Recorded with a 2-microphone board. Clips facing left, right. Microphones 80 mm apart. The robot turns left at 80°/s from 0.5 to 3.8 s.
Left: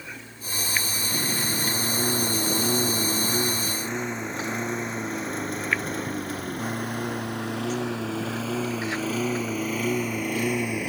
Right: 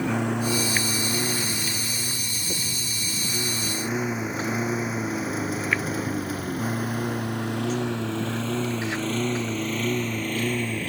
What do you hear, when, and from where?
0.0 s a lawn mower: 75° right (ahead or behind); by 10.9 s 15° left (ahead or behind)